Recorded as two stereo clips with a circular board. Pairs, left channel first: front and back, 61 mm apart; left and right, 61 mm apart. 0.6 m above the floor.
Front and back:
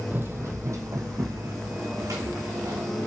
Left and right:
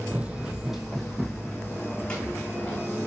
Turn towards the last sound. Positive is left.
turn(degrees=160)